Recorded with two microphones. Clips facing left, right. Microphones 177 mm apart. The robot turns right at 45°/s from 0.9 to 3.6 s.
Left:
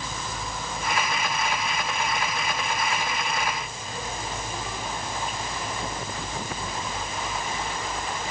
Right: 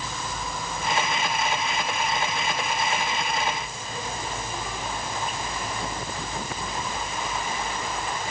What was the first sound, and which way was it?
Only background noise.